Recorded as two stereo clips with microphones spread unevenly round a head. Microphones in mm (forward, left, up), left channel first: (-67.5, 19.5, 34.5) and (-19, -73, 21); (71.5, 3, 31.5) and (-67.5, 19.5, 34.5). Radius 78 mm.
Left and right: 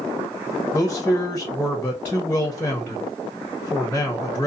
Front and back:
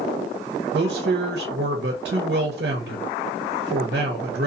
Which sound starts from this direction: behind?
A man speaking, at 0.7 s.